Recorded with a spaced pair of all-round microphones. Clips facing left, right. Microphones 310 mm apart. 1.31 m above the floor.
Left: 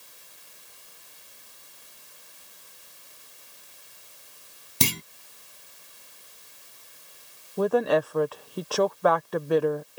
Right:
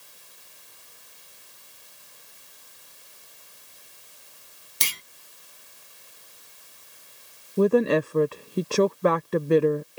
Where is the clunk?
55° left (ahead or behind).